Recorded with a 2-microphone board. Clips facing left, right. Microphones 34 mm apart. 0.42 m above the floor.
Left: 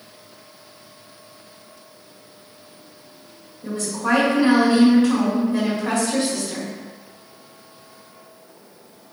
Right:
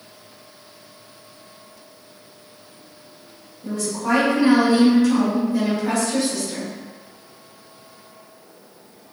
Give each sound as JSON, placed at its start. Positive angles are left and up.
{"t": 3.6, "sound": "a woman speaking", "side_deg": 40, "distance_m": 1.7}